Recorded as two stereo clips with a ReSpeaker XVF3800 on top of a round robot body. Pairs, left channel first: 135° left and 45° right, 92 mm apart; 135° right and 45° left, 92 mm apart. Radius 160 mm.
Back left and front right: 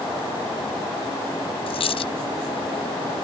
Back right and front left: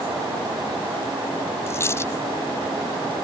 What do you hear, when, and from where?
1.7 s a dropped coin: 160° left